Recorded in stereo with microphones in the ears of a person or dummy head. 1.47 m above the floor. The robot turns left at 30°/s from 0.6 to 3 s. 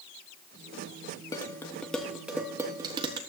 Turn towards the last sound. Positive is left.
turn(degrees=-25)  # may be behind; listen again after turning